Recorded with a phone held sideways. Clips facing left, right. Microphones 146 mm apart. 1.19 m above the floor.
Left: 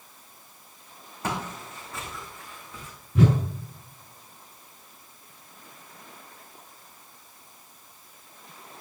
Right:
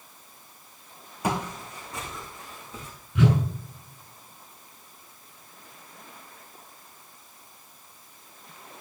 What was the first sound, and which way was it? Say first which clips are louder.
Footsteps: right 3 dB; 15° right (ahead or behind).